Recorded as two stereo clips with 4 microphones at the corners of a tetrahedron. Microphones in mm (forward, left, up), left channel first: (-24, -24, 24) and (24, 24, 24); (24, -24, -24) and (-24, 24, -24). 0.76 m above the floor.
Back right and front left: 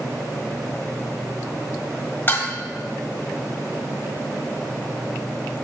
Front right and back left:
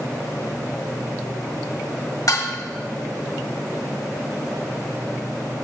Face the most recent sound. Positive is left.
turn(degrees=-80)